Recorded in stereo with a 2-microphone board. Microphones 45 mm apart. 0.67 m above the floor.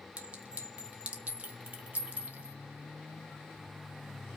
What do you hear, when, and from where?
0.2 s a clink: 30° right (ahead or behind), 0.7 m